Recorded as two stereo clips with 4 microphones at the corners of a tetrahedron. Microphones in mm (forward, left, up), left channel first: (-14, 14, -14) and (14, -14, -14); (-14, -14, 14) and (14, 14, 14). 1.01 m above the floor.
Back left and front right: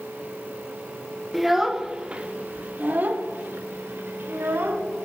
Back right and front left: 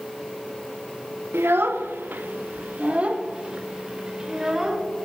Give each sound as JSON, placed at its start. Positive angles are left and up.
{"t": 1.3, "sound": "a child speaking", "azimuth_deg": 45, "distance_m": 1.0}